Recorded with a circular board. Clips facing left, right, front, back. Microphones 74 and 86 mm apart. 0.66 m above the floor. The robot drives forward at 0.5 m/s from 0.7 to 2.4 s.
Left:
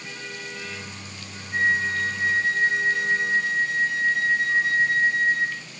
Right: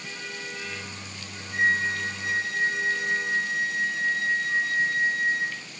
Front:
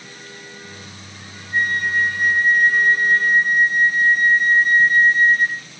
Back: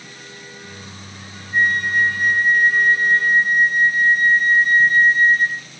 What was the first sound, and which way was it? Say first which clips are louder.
A flute: left 2 dB, back 2 dB; 40° left.